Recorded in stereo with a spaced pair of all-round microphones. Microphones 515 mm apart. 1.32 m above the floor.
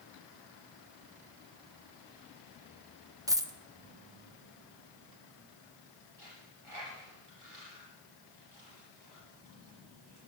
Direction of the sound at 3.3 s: 5° right (ahead or behind).